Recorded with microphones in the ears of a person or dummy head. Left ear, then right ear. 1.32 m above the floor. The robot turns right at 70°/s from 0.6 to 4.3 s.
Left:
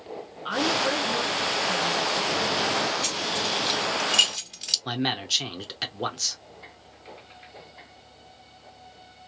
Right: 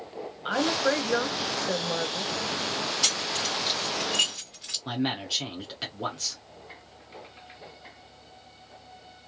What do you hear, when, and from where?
0.5 s a woman speaking: 175° right, 0.5 m; by 2.3 s 50° right, 0.5 m
3.0 s keys jangling: 50° right (ahead or behind), 1.3 m; by 4.8 s 30° left (ahead or behind), 1.3 m
4.8 s a man speaking: 20° left (ahead or behind), 0.7 m